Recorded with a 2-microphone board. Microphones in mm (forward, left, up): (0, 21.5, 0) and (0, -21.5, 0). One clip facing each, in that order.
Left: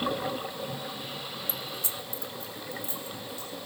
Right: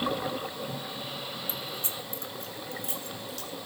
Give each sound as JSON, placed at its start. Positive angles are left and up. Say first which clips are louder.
{"t": 1.5, "sound": "keys jangling", "louder": "even", "side_deg": -30, "distance_m": 1.7}